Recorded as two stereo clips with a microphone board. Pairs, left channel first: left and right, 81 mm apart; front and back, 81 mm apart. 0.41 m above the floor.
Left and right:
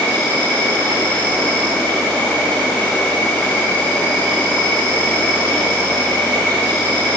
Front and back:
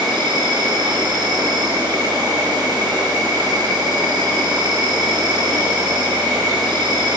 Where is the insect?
155° left, 1.6 m.